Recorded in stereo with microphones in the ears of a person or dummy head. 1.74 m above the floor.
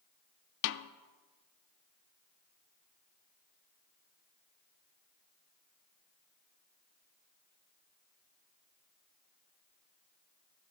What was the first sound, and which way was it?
A snare drum, 70° left (ahead or behind).